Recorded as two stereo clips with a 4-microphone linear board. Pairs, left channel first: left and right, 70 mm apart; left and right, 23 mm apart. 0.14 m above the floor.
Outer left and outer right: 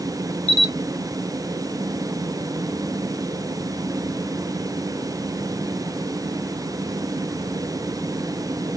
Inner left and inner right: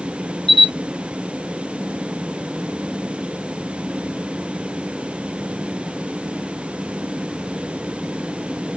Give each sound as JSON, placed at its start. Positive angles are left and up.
{"t": 0.5, "sound": "a camera shutter", "side_deg": 20, "distance_m": 1.3}